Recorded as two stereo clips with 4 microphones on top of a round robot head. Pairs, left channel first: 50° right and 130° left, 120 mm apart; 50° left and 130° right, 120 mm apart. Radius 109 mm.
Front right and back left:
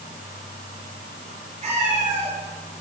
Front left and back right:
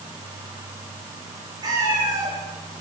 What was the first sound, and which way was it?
A cat meowing, 165° left.